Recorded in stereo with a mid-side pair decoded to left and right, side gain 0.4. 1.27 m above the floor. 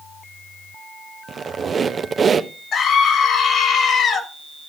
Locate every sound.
1.3 s a squeak: 40° right, 0.8 m
2.7 s a scream: 70° left, 3 m